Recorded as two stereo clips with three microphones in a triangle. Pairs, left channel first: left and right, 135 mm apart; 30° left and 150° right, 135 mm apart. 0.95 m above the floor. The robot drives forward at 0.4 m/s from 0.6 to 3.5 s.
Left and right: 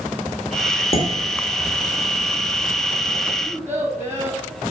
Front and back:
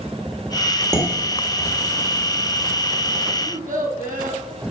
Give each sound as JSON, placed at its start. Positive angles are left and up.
{"t": 0.9, "sound": "dishes clattering", "azimuth_deg": 140, "distance_m": 1.8}
{"t": 3.4, "sound": "a child speaking", "azimuth_deg": -160, "distance_m": 3.5}